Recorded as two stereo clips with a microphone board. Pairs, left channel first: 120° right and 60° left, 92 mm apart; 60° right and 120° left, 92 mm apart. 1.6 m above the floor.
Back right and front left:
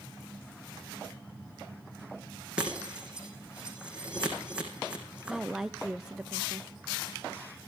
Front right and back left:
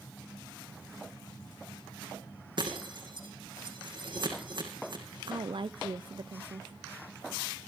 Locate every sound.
2.6 s breaking glass: 135° left, 4 m
5.3 s a woman speaking: 145° left, 0.5 m